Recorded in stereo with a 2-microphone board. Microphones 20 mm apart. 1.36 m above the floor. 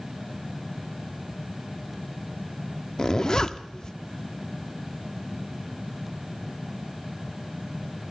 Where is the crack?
I don't hear a crack.